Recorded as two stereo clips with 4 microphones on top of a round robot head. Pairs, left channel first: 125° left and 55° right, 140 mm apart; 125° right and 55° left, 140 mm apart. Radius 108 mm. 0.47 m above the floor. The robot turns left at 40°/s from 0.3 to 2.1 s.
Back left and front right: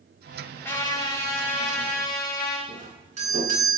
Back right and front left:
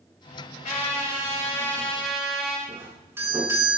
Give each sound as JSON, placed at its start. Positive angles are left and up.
{"t": 0.6, "sound": "a trumpet", "azimuth_deg": -160, "distance_m": 9.0}
{"t": 2.7, "sound": "a doorbell", "azimuth_deg": -20, "distance_m": 7.5}